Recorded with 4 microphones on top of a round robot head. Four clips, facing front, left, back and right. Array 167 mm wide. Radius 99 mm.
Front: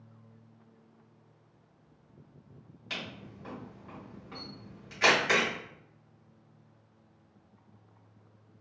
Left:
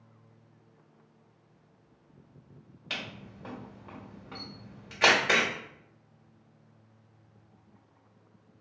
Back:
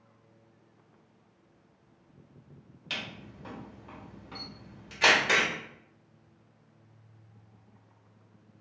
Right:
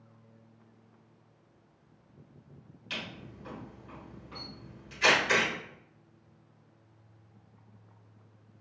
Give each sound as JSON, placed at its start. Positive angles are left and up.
{"t": 2.9, "sound": "a camera shutter", "azimuth_deg": 110, "distance_m": 1.1}